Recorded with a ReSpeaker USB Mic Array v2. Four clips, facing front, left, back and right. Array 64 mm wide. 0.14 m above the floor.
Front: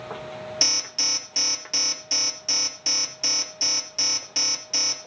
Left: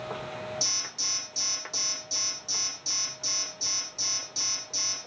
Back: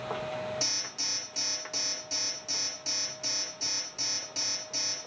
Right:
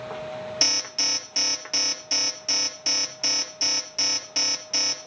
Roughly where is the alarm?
Ahead right.